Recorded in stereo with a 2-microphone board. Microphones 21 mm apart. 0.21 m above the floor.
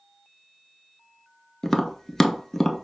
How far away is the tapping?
About 0.5 m.